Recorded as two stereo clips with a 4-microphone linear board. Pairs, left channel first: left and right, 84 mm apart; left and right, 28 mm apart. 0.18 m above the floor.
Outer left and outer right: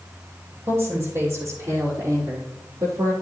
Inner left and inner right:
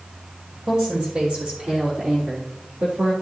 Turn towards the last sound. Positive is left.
turn(degrees=-55)  # may be behind; listen again after turning